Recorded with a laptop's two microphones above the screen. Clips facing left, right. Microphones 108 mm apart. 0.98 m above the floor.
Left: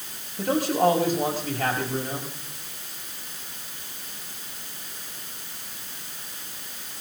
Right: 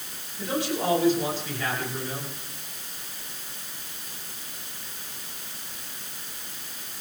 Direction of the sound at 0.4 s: 55° left (ahead or behind).